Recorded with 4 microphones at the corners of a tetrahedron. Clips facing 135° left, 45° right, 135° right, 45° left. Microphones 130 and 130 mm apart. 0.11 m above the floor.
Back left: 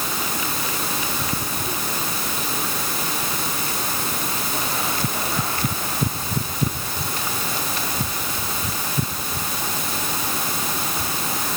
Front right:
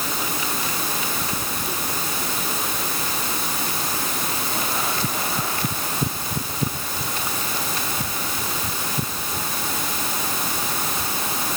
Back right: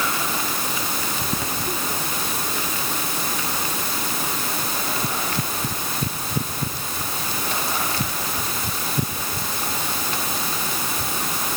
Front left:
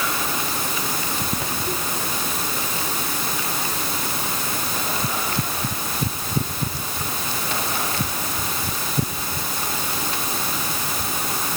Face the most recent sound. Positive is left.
No sound to turn to.